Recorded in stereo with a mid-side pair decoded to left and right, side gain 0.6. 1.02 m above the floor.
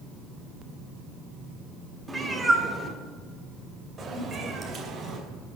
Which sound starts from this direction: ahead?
A cat meowing, at 2.1 s.